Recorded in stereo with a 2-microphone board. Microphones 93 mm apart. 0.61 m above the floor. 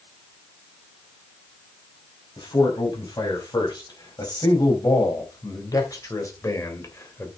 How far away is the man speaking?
About 5 m.